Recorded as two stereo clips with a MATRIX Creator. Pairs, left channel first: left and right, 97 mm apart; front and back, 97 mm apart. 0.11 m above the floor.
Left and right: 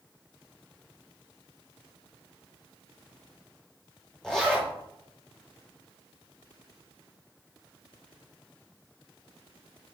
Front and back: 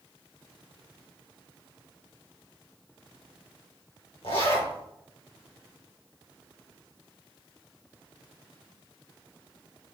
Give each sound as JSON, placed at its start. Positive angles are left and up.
{"t": 4.2, "sound": "a zipper", "azimuth_deg": 5, "distance_m": 3.0}